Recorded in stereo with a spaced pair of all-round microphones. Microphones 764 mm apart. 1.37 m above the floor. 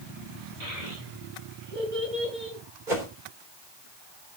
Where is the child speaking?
65° right (ahead or behind), 9.5 m; by 2.6 s 80° right, 9.5 m.